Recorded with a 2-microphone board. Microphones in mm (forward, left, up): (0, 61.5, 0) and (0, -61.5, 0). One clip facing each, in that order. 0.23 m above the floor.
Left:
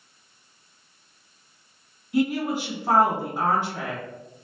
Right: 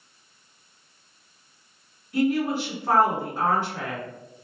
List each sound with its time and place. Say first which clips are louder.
2.1 s a woman speaking: right 1 dB; 15° left (ahead or behind), 1.9 m